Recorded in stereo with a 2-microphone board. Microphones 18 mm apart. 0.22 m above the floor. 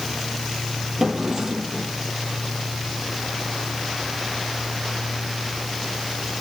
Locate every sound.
1.0 s a drawer: 30° right (ahead or behind), 4 m